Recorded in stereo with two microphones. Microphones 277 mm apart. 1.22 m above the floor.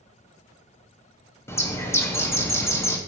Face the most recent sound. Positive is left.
turn(degrees=10)  # may be behind; listen again after turning